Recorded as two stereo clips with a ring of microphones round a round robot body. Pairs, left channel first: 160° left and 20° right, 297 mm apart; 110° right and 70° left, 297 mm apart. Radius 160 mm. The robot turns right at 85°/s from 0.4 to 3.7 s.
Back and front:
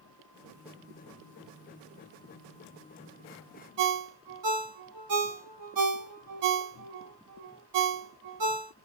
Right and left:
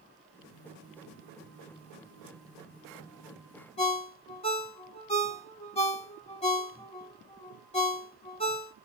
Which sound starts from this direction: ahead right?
A ringtone, at 3.8 s.